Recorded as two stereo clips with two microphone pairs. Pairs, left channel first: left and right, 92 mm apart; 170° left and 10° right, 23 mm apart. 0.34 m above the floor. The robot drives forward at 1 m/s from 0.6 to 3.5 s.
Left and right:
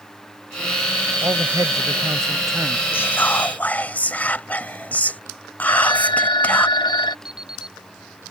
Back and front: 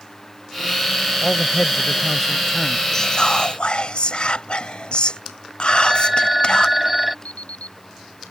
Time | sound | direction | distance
1.2 | a man speaking | 75° right | ?
2.9 | whispering | 130° left | ?
5.7 | a phone ringing | 75° left | ?
7.2 | an alarm clock | 170° right | ?